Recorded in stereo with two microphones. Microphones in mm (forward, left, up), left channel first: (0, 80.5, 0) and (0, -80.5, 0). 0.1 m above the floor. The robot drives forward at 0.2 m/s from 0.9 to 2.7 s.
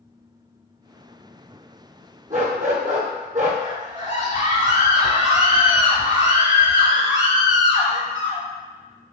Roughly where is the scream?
Right.